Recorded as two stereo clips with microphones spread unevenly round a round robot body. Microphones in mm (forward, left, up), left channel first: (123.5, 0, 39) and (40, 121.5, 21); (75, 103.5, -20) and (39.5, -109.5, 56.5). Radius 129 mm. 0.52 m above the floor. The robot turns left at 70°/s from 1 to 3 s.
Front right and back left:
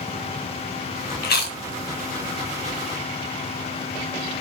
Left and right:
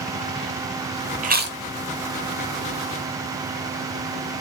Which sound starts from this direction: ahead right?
Chewing, at 1.2 s.